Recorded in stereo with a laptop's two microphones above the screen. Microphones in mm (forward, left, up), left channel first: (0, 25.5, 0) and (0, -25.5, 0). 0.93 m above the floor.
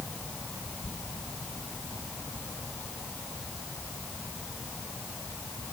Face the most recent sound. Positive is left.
No sound to turn to.